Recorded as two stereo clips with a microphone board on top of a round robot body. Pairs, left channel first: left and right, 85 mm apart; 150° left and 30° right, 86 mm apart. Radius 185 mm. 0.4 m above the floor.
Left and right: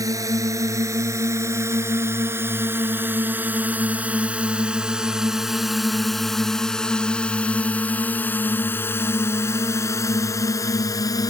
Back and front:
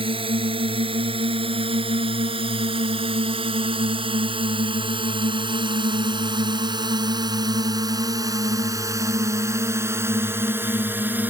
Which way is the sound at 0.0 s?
40° right.